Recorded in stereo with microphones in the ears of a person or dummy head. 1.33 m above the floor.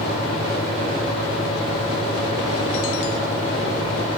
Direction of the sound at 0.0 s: 35° left (ahead or behind).